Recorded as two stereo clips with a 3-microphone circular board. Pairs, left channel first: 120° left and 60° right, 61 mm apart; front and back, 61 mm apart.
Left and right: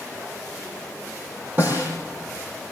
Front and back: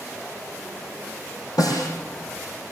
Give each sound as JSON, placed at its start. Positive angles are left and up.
{"t": 1.6, "sound": "a snare drum", "azimuth_deg": -5, "distance_m": 8.0}